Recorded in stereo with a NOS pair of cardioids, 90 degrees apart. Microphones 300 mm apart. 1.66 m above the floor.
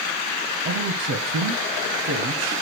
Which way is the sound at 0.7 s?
55° right.